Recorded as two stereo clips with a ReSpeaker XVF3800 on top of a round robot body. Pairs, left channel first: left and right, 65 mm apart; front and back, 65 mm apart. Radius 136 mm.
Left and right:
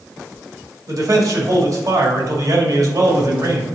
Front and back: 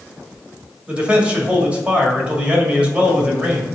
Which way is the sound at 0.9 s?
110° right.